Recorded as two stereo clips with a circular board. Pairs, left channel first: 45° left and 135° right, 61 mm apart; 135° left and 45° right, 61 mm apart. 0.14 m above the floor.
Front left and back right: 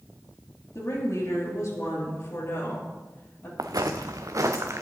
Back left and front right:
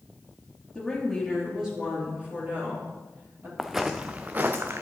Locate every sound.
0.8 s a woman speaking: 55° left, 3.5 m; by 3.5 s straight ahead, 4 m
3.6 s footsteps: 135° right, 0.7 m; by 4.8 s 95° right, 1.1 m